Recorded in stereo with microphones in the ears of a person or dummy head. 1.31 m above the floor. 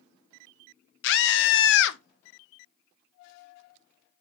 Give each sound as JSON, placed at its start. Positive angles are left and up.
{"t": 1.0, "sound": "a scream", "side_deg": 60, "distance_m": 0.6}